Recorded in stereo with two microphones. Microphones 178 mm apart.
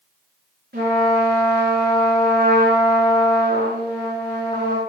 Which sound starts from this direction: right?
A trumpet, at 0.7 s.